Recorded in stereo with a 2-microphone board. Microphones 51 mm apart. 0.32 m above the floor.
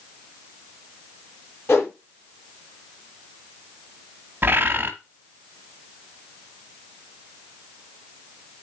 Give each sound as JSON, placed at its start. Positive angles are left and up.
{"t": 1.7, "sound": "a whoosh", "side_deg": 55, "distance_m": 5.5}
{"t": 4.4, "sound": "a bird", "side_deg": -40, "distance_m": 1.3}